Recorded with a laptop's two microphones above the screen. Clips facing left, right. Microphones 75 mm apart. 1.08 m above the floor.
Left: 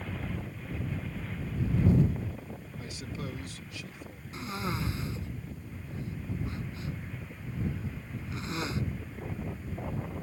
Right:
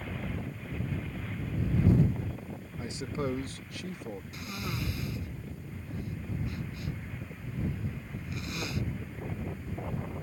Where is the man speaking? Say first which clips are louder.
Right 7 dB; 20° right (ahead or behind); by 4.2 s 70° right (ahead or behind).